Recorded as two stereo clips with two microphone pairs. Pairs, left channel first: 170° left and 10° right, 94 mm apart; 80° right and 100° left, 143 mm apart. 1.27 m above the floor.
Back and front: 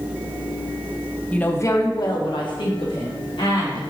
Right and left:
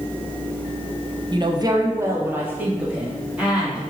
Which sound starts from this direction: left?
A woman speaking, at 1.3 s.